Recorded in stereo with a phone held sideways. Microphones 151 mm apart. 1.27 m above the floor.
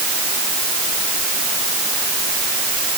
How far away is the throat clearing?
I don't hear throat clearing.